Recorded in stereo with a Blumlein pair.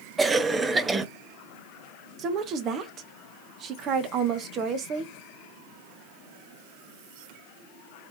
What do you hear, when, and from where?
0.2 s a cough: 10° right, 0.7 m
2.2 s a woman speaking: 30° right, 1.0 m